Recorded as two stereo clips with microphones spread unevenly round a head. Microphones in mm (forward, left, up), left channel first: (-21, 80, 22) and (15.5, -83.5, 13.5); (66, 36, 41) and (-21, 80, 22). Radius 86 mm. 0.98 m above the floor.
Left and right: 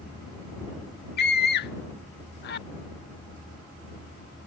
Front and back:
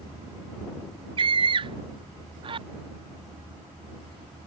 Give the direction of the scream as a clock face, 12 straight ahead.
8 o'clock.